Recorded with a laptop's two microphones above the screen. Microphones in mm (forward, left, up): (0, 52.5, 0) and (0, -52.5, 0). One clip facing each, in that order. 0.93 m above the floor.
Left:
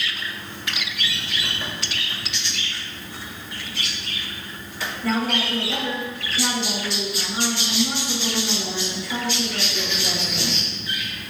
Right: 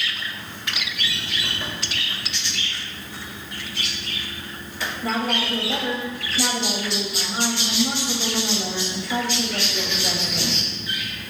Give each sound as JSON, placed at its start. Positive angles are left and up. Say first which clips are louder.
{"t": 5.0, "sound": "a woman speaking", "louder": "left 1 dB", "side_deg": -25, "distance_m": 5.5}